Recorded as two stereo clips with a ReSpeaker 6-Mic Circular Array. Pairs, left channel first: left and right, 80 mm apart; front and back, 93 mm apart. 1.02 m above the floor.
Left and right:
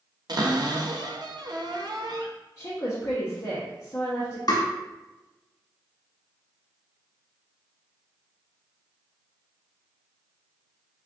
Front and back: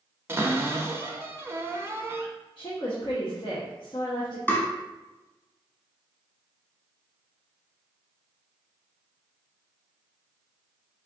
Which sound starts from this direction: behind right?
A cupboard door, at 0.3 s.